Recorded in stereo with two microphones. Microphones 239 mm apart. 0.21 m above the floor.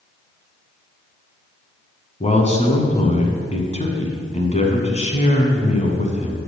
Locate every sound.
2.2 s a man speaking: 30° left (ahead or behind), 1.4 m